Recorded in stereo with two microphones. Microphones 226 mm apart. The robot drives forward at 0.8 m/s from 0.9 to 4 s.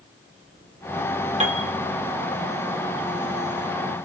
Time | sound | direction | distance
1.4 | a piano | 30° right (ahead or behind) | 3 m